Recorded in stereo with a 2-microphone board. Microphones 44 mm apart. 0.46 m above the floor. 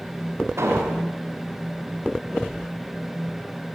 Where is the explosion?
75° right (ahead or behind), 2 m.